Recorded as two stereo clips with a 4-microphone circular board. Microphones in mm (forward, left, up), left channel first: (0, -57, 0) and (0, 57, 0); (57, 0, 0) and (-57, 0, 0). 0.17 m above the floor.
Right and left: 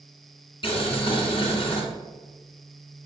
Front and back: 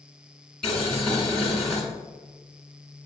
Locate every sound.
0.6 s boiling: 85° right, 1.7 m